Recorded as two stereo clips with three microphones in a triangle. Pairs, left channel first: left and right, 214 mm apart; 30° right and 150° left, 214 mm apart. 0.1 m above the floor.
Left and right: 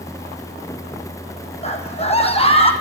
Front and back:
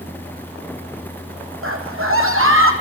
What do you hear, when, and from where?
1.6 s a scream: 150° left, 5 m; by 2.7 s 155° left, 4.5 m